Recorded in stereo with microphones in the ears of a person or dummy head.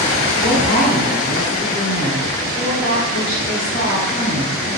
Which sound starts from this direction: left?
A woman speaking, at 0.4 s.